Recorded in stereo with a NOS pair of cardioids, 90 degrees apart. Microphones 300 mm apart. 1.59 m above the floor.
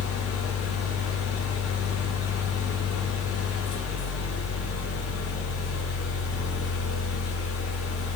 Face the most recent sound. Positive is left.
turn(degrees=55)